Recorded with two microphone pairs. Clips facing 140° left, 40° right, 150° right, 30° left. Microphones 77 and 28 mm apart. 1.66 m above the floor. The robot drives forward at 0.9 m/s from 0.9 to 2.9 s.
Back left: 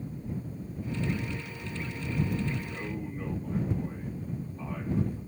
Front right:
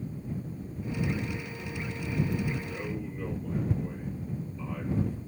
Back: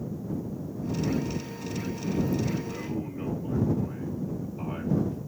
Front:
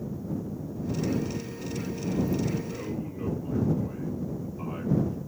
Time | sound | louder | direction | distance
2.6 | a man speaking | front right 1 dB, back 1 dB | 175° right | 2.5 m